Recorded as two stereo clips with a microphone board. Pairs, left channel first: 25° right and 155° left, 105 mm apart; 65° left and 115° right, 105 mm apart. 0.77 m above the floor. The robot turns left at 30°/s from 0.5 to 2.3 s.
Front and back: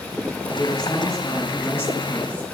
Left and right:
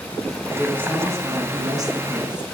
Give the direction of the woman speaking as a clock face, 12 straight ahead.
1 o'clock.